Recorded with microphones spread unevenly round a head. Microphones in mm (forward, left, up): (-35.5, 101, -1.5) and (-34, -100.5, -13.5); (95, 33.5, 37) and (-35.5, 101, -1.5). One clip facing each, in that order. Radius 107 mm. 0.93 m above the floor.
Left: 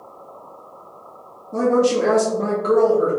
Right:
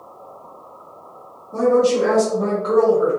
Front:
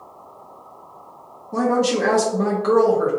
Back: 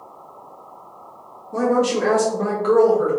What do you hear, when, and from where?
1.5 s a woman speaking: 25° left, 1.0 m